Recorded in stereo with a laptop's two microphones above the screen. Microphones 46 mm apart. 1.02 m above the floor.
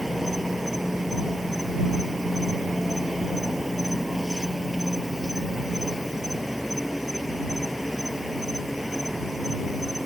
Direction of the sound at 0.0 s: 5° right (ahead or behind).